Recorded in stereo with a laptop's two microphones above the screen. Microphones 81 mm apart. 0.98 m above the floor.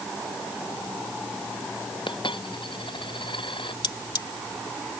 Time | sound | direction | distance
2.1 | a dropped coin | 80° left | ?
3.8 | cutlery clinking | 65° left (ahead or behind) | ?